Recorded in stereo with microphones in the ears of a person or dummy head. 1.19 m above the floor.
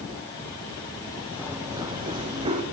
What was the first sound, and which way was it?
Running footsteps, 10° right (ahead or behind).